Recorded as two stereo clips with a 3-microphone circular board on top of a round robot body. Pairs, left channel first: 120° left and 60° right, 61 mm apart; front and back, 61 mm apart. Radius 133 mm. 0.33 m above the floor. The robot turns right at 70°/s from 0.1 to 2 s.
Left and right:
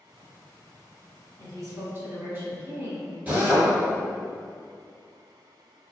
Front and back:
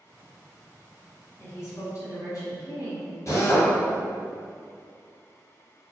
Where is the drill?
Straight ahead, 1.3 m.